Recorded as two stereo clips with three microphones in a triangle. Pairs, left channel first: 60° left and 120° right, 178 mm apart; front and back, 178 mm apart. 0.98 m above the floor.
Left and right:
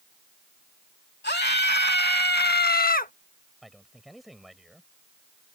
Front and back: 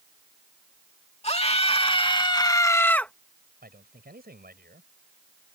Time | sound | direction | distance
1.2 | a scream | 50° left | ?
3.6 | a man speaking | 150° left | ?